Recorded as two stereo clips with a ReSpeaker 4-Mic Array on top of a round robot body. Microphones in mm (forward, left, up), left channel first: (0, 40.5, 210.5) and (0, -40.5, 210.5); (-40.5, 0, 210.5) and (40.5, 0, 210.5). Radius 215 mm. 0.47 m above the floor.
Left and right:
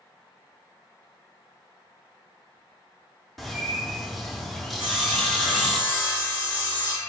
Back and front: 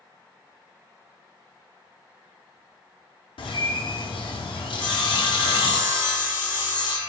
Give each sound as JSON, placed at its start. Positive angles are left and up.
{"t": 3.4, "sound": "a bird", "azimuth_deg": 180, "distance_m": 0.7}
{"t": 4.8, "sound": "sawing", "azimuth_deg": 155, "distance_m": 1.3}